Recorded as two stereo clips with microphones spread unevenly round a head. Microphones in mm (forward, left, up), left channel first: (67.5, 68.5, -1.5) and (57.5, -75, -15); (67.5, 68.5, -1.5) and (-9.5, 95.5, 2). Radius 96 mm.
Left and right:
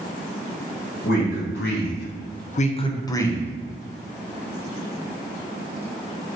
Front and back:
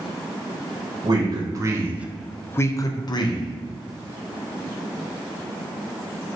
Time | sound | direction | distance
1.0 | a man speaking | 120° left | 0.9 m